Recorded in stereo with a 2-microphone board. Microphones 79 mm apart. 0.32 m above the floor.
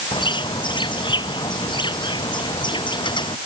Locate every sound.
0.1 s a bird: 80° left